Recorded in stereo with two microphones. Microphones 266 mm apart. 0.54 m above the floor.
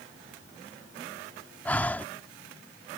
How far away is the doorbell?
No doorbell in this recording.